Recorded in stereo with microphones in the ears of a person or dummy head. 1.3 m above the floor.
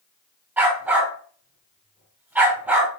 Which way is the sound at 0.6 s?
10° right (ahead or behind).